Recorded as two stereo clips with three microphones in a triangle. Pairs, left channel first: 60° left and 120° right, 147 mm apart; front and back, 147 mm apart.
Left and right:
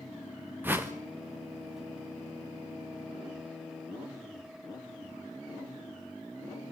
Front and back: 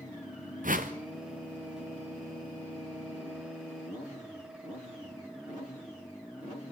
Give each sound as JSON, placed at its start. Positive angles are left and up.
{"t": 0.6, "sound": "a whoosh", "azimuth_deg": 165, "distance_m": 2.5}